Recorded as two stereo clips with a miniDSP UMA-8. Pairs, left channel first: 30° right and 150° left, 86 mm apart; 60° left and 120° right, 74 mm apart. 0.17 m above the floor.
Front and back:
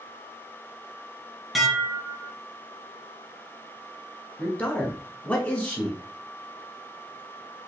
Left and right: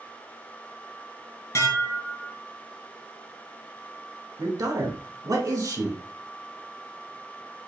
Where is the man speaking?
100° right, 1.6 m.